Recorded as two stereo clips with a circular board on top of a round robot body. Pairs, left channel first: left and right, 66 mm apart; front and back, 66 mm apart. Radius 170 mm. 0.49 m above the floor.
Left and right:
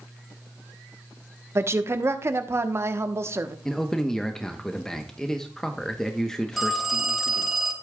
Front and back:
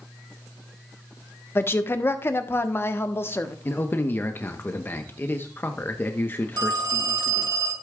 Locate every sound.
1.6 s a woman speaking: 50° right, 1.1 m
3.6 s a man speaking: 15° left, 1.0 m
6.6 s a phone ringing: straight behind, 2 m